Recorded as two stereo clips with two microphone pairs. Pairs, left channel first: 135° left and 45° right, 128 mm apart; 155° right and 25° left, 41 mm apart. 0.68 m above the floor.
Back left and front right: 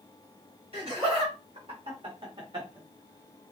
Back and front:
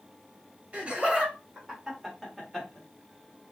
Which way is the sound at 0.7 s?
25° right.